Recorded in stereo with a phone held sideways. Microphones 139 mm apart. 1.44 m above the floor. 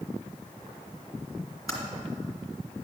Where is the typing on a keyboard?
20° left (ahead or behind), 2 m.